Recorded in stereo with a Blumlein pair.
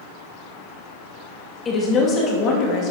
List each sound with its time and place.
1.6 s a woman speaking: 20° left, 2.5 m; by 2.9 s 40° left, 2.5 m